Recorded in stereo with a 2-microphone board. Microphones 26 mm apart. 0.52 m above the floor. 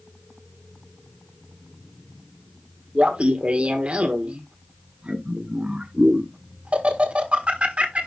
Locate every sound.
3.0 s laughter: 50° right (ahead or behind), 1.3 m